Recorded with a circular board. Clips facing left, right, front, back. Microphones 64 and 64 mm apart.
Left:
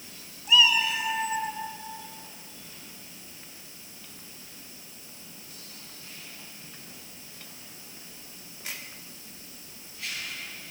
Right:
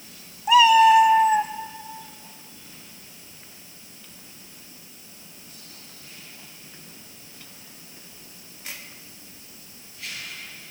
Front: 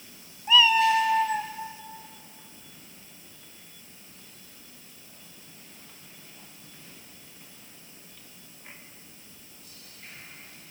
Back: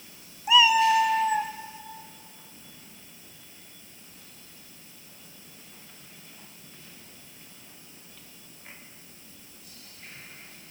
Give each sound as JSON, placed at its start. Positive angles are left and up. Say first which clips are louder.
{"t": 0.5, "sound": "a cat meowing", "louder": "right 10 dB, back 1 dB", "azimuth_deg": -105, "distance_m": 0.9}